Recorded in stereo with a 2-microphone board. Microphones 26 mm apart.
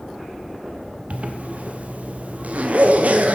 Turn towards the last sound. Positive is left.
turn(degrees=-65)  # may be behind; listen again after turning